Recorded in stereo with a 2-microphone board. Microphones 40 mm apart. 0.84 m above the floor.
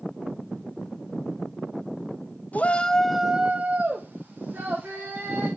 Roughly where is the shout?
Left.